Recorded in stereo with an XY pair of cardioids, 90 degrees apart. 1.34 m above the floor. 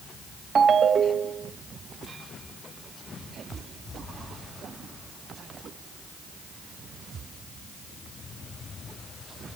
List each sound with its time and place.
0.6 s a ringtone: 55° right, 0.8 m